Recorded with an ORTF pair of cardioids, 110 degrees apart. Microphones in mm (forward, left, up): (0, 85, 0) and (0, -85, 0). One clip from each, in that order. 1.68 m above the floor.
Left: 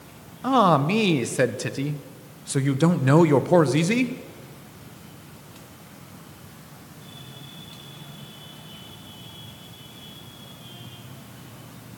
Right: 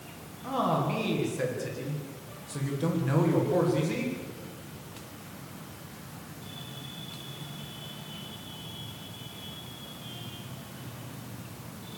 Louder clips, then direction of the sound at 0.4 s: Left 10 dB; 70° left.